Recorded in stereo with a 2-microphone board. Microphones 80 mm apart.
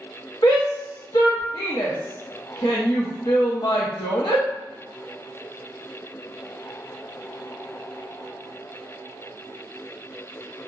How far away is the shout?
About 0.8 m.